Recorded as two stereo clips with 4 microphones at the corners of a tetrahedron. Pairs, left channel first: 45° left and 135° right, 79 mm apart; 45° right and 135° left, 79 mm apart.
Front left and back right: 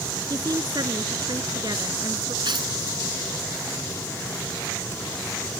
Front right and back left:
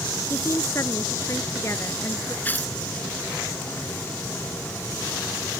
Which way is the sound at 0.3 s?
100° right.